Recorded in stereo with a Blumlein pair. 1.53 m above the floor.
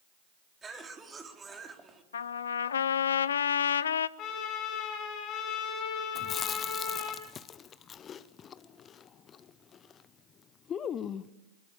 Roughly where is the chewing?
Ahead left.